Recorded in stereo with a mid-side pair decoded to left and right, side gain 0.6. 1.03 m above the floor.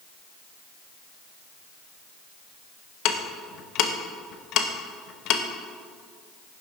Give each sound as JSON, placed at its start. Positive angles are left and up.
{"t": 3.0, "sound": "ticking", "azimuth_deg": 65, "distance_m": 0.9}